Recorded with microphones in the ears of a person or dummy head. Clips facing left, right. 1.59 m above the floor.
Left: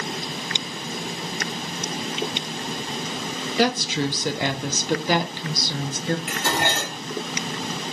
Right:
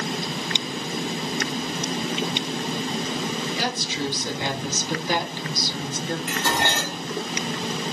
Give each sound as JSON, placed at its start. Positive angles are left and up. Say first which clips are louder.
{"t": 3.6, "sound": "a woman speaking", "louder": "left 6 dB", "side_deg": 55, "distance_m": 0.5}
{"t": 6.3, "sound": "dishes clattering", "louder": "even", "side_deg": 5, "distance_m": 1.4}